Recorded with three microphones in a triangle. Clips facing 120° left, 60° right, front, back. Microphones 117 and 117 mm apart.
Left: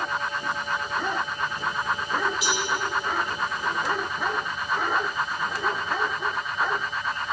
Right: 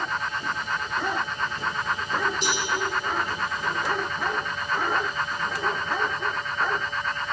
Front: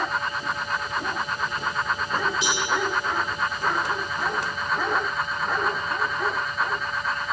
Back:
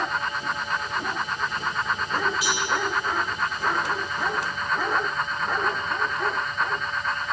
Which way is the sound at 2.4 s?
45° left.